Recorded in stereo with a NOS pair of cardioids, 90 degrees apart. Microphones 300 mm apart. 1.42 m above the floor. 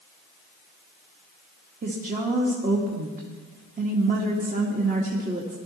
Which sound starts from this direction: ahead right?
A woman speaking, at 1.8 s.